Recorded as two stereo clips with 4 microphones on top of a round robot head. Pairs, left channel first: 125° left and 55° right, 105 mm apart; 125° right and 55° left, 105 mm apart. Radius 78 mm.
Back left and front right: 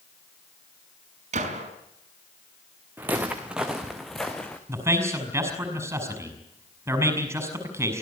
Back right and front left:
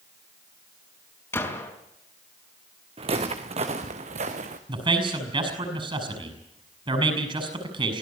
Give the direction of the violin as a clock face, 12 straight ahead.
No violin in this recording.